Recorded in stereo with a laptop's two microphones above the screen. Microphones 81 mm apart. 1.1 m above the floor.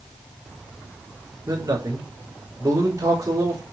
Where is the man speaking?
45° right (ahead or behind), 3.5 m.